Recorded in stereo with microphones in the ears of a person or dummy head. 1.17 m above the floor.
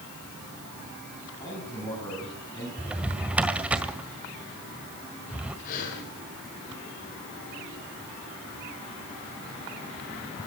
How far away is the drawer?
About 1.8 m.